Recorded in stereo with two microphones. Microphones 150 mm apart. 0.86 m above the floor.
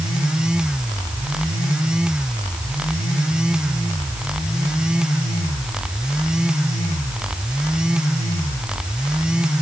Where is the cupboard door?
No cupboard door in this recording.